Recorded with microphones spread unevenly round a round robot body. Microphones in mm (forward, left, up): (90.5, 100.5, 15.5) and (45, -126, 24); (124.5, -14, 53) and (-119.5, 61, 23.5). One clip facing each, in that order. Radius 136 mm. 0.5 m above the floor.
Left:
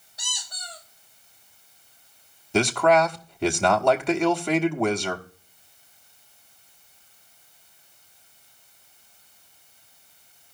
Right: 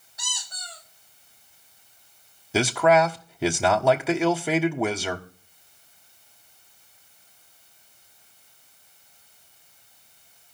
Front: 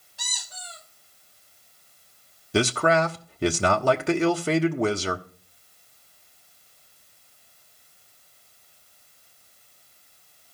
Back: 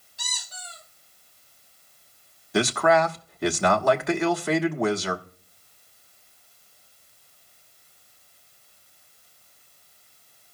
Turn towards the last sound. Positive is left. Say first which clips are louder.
# even, even
turn(degrees=-20)